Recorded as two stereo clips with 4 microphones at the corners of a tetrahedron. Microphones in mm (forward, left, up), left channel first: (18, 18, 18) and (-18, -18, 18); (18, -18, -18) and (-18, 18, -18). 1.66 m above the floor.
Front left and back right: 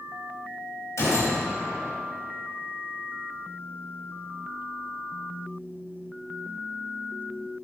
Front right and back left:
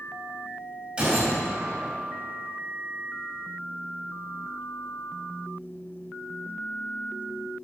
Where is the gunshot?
60° left, 5 m.